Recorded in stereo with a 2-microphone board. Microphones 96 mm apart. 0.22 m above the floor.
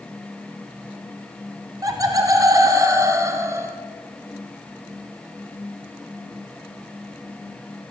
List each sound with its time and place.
1.8 s laughter: 40° right (ahead or behind), 1.5 m; by 3.8 s 30° right (ahead or behind), 1.9 m